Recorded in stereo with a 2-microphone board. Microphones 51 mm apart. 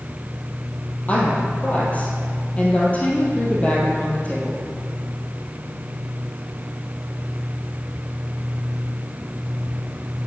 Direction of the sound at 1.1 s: 25° left (ahead or behind).